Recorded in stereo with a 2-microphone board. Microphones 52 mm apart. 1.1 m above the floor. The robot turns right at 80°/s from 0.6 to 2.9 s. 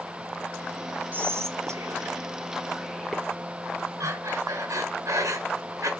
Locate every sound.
1.1 s whispering: 35° right (ahead or behind), 1.4 m; by 3.2 s centre (ahead or behind), 1.4 m
4.0 s breathing: 80° right, 3.5 m